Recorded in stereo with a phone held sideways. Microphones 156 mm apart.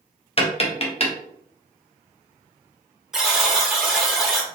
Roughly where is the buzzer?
Centre.